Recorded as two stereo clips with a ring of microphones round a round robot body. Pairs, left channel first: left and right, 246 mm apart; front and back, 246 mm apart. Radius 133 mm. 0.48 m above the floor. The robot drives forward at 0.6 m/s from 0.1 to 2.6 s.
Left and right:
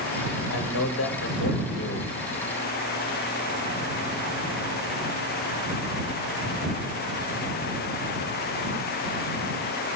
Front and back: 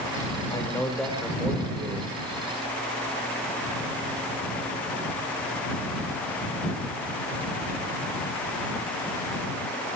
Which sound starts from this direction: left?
A man speaking, at 0.5 s.